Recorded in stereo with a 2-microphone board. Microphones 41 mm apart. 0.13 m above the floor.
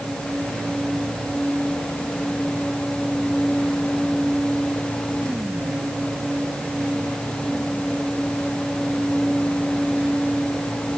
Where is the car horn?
No car horn in this recording.